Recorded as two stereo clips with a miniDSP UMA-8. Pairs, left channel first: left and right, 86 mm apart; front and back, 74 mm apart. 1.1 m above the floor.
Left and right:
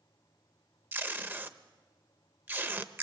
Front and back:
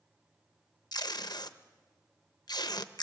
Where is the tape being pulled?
25° right, 0.9 m.